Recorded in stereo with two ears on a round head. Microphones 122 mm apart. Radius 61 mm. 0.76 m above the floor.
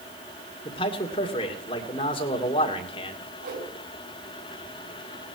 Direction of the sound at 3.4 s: 80° right.